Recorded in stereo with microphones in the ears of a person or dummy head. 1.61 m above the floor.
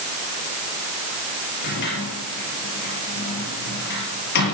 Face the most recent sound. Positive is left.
turn(degrees=70)  # may be behind; listen again after turning